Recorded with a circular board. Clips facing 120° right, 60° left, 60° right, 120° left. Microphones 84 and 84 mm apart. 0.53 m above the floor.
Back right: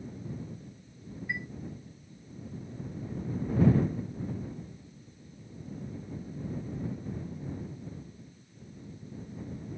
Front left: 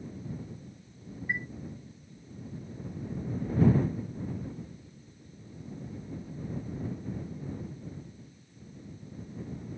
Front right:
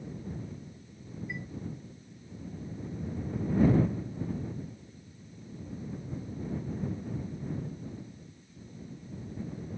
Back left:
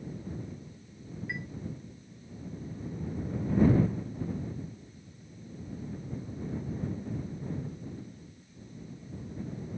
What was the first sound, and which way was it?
A chime, 110° left.